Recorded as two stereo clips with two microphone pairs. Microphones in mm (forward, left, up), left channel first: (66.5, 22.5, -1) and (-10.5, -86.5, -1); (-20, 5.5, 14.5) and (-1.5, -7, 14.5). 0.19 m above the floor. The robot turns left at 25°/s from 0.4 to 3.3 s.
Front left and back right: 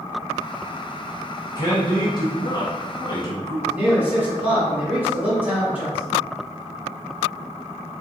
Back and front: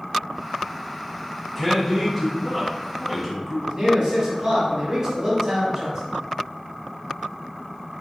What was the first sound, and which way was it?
A man speaking, 85° left.